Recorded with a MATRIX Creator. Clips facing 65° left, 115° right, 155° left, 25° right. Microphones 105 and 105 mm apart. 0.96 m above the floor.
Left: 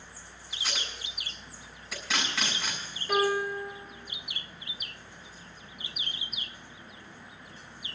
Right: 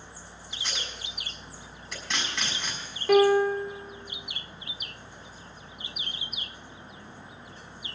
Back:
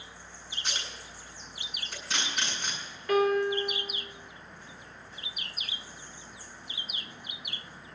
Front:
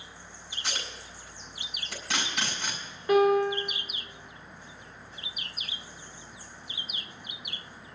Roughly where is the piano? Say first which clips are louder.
Right 8 dB, front 3 dB; right.